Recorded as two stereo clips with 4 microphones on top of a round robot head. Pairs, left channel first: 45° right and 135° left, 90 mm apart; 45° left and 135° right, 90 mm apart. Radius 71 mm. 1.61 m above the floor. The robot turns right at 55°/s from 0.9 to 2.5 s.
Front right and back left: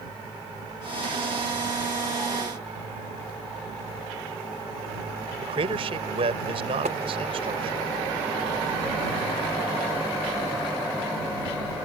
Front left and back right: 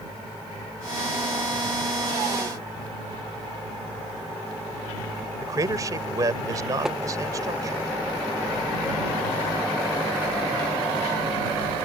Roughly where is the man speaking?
Behind.